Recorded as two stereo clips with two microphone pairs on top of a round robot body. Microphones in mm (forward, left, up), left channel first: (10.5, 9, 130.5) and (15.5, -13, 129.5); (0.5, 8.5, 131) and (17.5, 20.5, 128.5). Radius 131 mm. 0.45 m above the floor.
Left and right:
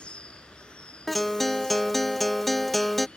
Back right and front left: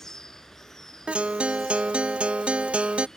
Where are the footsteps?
I don't hear footsteps.